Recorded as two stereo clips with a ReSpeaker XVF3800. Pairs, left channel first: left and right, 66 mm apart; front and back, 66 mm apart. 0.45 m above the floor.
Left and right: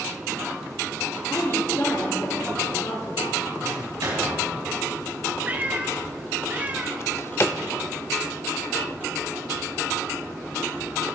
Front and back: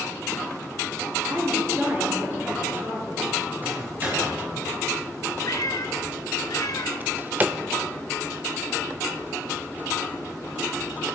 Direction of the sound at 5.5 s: 25° right.